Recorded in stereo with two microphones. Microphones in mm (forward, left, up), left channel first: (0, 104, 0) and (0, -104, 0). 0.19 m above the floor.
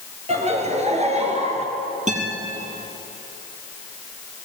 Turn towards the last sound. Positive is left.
turn(degrees=-35)  # may be behind; listen again after turning